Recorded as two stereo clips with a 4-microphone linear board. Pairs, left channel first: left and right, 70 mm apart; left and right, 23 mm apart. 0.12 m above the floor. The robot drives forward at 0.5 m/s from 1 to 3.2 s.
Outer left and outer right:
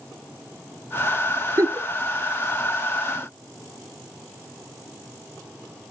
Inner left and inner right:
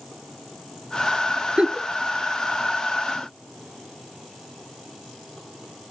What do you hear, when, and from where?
1.6 s a giggle: 45° right (ahead or behind), 0.8 m